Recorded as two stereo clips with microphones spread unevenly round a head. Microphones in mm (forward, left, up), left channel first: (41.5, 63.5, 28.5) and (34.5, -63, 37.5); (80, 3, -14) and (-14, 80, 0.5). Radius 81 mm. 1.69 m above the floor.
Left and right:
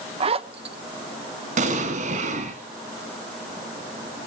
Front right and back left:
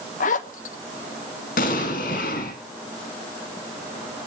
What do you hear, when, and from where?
0.2 s a zipper: 60° right, 1.2 m
1.6 s an explosion: 70° right, 5.5 m